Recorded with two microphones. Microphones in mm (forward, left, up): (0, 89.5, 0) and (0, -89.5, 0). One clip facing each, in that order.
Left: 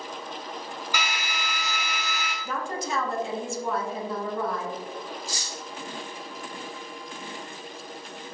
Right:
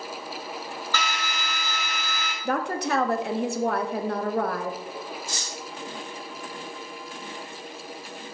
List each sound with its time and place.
0.9 s a drill: 10° left (ahead or behind), 1.4 m
2.5 s a woman speaking: 65° right (ahead or behind), 0.6 m
5.3 s cutlery clinking: 35° left (ahead or behind), 2 m